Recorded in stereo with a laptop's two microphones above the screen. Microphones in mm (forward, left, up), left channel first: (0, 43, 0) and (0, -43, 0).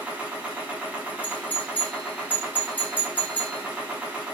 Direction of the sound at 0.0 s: 15° right (ahead or behind).